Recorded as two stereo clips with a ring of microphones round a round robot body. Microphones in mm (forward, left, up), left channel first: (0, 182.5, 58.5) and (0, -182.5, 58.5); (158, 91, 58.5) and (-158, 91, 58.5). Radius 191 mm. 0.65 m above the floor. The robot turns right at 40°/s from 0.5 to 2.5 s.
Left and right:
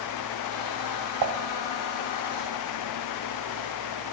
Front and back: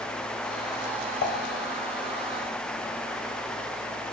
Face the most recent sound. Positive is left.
turn(degrees=-10)